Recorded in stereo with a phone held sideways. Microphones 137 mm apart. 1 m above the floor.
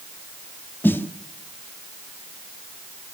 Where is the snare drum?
15° left (ahead or behind), 0.9 m.